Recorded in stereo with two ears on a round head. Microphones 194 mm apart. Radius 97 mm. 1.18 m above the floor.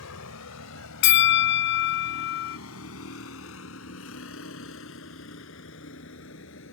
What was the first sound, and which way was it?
A vehicle, 85° left.